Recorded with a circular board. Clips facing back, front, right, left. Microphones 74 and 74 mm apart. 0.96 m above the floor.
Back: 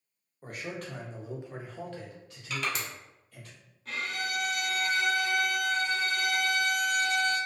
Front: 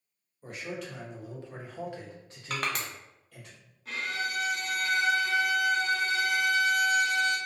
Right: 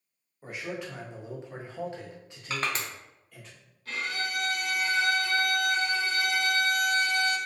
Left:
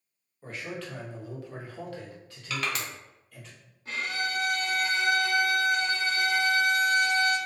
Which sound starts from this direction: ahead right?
Crushing, at 2.5 s.